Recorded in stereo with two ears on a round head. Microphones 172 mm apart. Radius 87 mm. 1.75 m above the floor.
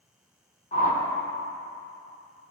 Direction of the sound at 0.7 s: 35° left (ahead or behind).